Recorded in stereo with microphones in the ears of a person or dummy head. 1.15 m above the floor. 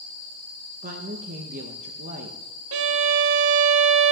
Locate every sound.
0.8 s a woman speaking: 50° right (ahead or behind), 0.8 m
2.7 s a violin: 75° right (ahead or behind), 0.6 m